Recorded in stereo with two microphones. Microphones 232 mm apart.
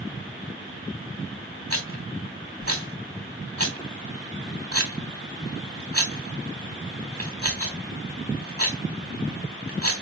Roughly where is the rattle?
Right.